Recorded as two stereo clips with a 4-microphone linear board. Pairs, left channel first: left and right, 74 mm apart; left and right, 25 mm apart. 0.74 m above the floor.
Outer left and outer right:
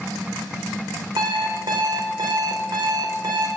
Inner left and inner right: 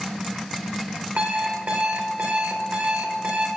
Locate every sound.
1.2 s an alarm clock: 85° right, 1.4 m